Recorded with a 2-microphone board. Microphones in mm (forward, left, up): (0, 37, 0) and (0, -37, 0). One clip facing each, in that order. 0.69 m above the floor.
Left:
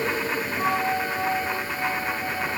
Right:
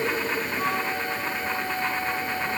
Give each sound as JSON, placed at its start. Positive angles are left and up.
{"t": 0.6, "sound": "a flute", "side_deg": 90, "distance_m": 7.5}